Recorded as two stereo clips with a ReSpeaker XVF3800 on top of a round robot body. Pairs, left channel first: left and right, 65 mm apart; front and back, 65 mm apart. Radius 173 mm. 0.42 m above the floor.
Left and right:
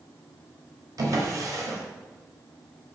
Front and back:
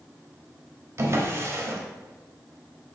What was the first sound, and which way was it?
A drawer, 130° right.